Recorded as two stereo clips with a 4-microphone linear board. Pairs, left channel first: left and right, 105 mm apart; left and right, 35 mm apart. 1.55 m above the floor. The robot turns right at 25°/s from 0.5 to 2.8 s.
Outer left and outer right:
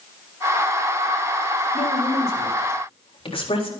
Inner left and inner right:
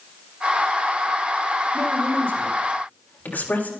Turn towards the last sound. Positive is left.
turn(degrees=60)  # may be behind; listen again after turning